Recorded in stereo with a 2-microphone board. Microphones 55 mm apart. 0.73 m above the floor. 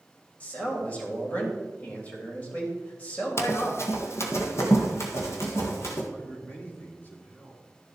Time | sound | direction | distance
0.4 | a man speaking | 25° left (ahead or behind) | 3 m
3.4 | running footsteps | 50° left (ahead or behind) | 1.1 m
6.1 | a man speaking | 30° left (ahead or behind) | 2.5 m